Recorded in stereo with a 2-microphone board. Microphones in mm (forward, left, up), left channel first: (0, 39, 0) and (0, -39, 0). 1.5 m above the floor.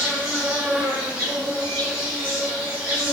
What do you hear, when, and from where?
0.0 s an insect: 20° right (ahead or behind), 1.9 m